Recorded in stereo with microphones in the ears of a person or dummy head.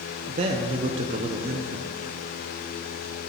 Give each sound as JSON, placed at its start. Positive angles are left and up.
{"t": 0.3, "sound": "a man speaking", "side_deg": -35, "distance_m": 0.7}